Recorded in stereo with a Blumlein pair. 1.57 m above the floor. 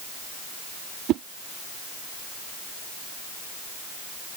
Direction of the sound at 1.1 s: 35° right.